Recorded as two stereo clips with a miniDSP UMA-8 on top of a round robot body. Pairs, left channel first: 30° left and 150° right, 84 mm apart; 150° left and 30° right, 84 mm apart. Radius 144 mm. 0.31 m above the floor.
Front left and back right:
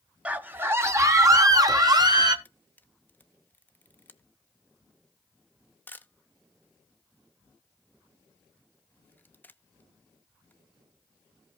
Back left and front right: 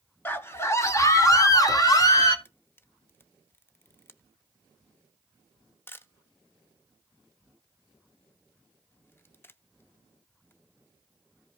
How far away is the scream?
About 1.5 m.